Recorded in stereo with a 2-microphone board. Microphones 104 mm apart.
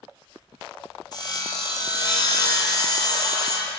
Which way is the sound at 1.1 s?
45° left (ahead or behind).